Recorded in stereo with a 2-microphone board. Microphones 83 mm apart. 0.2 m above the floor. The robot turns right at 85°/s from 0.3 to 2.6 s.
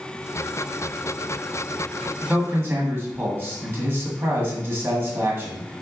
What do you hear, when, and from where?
2.2 s a man speaking: 25° right (ahead or behind), 1.3 m; by 5.8 s 30° right (ahead or behind), 1.3 m